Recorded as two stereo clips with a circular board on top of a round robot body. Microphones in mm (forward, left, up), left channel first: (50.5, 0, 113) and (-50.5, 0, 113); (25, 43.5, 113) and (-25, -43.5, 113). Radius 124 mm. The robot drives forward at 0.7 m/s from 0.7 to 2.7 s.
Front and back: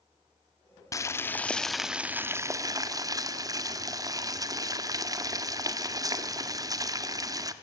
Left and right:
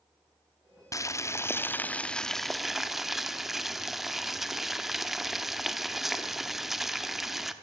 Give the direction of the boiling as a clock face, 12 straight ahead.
11 o'clock.